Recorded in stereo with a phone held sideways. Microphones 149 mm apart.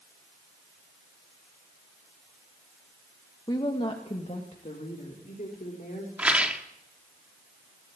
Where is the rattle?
10° right (ahead or behind), 1.8 m.